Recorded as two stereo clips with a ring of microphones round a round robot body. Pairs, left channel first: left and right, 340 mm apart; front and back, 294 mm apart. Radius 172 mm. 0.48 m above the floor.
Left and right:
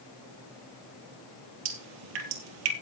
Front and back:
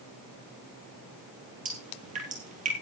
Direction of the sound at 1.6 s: 110° right.